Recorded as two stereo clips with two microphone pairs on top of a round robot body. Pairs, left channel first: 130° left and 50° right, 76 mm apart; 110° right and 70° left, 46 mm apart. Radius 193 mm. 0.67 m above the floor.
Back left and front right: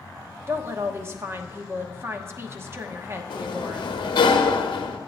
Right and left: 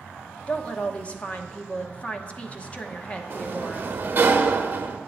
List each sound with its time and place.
0.5 s a woman speaking: 70° right, 1.3 m
3.3 s a sliding door: 120° left, 0.7 m